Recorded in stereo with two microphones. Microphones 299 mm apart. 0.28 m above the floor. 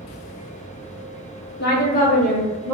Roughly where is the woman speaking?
Left.